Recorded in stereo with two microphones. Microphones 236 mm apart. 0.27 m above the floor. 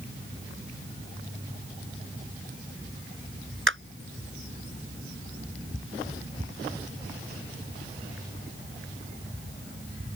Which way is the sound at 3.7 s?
60° right (ahead or behind).